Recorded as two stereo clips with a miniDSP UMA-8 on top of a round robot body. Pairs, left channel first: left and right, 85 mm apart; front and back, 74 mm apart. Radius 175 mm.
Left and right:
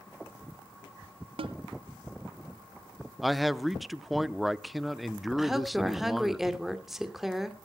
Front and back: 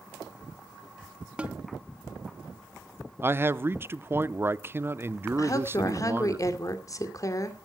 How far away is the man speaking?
About 0.9 m.